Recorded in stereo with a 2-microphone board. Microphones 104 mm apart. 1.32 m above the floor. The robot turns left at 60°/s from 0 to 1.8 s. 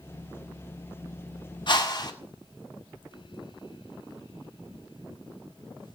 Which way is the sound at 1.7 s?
50° left (ahead or behind).